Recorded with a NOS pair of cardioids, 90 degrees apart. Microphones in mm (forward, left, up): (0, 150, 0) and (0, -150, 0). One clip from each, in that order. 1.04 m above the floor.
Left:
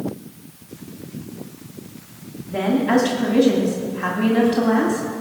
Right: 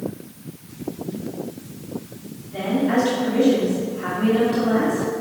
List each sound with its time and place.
2.5 s a woman speaking: 55° left, 2.5 m